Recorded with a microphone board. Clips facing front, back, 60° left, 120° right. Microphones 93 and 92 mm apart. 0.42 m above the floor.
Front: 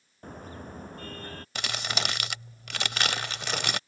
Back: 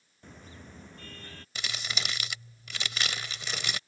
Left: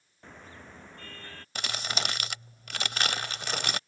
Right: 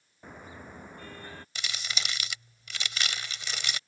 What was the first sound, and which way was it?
A car horn, 40° right.